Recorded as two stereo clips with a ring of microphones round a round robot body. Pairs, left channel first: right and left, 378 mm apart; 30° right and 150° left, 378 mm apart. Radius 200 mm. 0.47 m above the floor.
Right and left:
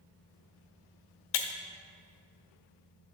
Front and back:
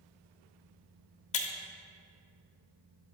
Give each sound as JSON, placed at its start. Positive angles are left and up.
{"t": 1.3, "sound": "breaking glass", "azimuth_deg": -100, "distance_m": 0.8}